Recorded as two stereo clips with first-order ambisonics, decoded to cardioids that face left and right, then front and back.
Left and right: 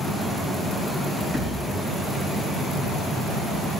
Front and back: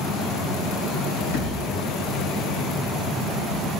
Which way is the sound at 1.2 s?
20° right.